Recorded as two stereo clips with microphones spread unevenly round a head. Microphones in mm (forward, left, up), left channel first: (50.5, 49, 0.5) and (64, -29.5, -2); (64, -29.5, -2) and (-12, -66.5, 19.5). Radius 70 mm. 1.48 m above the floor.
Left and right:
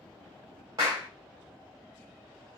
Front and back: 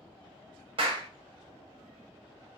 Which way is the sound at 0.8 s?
150° right.